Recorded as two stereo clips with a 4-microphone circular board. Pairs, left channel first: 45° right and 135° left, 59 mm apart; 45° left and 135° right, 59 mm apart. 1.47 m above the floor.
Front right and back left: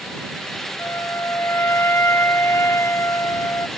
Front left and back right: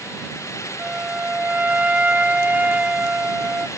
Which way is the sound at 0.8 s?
75° right.